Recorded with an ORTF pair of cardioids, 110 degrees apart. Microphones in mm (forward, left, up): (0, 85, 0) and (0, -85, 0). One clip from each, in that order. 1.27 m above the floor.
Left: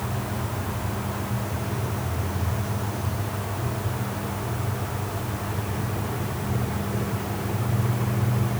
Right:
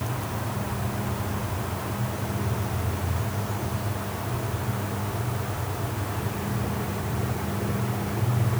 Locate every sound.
Only background noise.